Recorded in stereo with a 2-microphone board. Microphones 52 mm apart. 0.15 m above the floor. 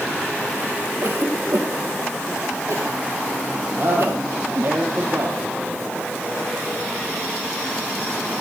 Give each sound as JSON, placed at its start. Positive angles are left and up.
{"t": 1.0, "sound": "a cough", "side_deg": -55, "distance_m": 3.0}
{"t": 3.8, "sound": "a man speaking", "side_deg": -50, "distance_m": 4.0}